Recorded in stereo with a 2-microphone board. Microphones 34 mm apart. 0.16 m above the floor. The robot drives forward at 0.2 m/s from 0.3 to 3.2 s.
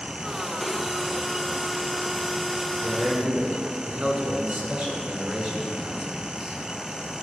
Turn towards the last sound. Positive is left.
turn(degrees=-45)  # may be behind; listen again after turning